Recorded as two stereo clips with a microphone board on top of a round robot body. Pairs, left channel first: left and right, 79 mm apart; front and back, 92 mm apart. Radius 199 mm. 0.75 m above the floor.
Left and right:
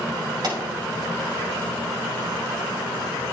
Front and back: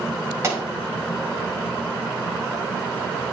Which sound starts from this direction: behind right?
A pop, at 0.4 s.